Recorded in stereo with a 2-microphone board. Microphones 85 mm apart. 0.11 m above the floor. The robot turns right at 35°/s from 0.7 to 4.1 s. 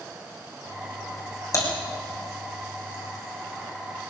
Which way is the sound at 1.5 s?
45° left (ahead or behind).